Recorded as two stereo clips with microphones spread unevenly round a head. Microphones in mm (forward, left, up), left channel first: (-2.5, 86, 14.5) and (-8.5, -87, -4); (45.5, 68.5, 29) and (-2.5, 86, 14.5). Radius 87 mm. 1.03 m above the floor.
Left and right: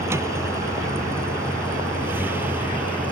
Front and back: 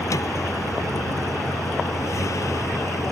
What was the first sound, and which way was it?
A vehicle, 15° right.